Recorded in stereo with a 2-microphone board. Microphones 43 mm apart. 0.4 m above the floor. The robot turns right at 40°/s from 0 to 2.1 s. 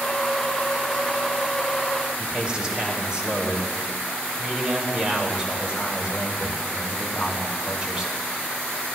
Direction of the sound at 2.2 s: 25° right (ahead or behind).